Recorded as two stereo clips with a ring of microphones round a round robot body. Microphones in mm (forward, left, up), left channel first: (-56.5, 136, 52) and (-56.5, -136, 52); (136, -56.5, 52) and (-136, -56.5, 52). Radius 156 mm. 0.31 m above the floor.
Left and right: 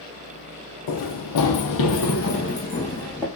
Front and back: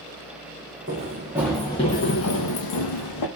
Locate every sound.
0.9 s running footsteps: 115° left, 0.8 m; by 3.3 s straight ahead, 0.9 m